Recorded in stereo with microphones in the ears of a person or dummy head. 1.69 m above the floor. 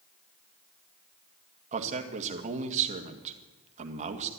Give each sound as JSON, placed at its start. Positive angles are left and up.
{"t": 1.7, "sound": "a man speaking", "side_deg": -40, "distance_m": 1.9}